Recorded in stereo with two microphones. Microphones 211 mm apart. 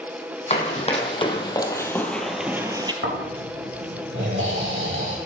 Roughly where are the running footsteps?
Left.